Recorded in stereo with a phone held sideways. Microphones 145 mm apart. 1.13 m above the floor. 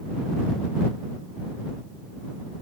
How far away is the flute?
I don't hear a flute.